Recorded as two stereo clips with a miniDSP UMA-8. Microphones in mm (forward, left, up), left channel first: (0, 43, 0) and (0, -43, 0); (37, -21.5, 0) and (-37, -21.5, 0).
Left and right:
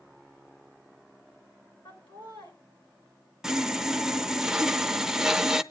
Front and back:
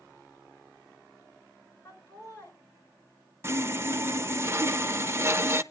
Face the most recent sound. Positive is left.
turn(degrees=-170)